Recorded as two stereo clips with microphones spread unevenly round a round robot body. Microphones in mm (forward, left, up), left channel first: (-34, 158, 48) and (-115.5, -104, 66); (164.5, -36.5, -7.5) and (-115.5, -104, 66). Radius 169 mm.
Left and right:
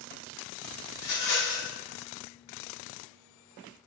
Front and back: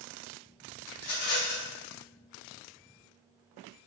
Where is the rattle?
35° left, 1.5 m.